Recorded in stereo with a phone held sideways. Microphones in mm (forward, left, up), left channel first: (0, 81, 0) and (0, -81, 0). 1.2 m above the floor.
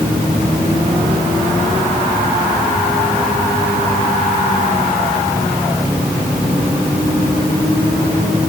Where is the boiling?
I don't hear boiling.